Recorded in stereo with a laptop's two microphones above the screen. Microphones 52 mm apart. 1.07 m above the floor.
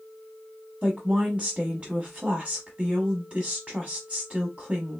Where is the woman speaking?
15° right (ahead or behind), 1.0 m.